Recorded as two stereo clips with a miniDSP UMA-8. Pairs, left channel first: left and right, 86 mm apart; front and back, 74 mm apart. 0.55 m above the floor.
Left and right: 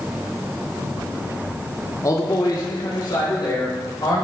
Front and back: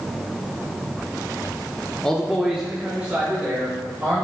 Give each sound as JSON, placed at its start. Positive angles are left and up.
{"t": 2.0, "sound": "a man speaking", "azimuth_deg": 75, "distance_m": 1.0}